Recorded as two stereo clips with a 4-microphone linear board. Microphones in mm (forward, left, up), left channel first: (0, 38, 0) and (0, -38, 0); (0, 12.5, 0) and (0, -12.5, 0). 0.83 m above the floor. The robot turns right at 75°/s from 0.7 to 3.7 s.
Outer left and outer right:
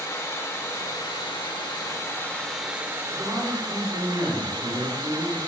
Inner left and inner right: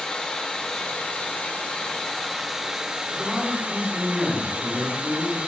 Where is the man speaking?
170° right, 3 m; by 5.4 s 120° right, 3 m.